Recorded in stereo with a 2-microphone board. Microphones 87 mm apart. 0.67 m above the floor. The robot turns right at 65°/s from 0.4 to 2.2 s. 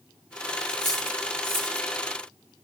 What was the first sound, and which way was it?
Cutlery clinking, 55° left (ahead or behind).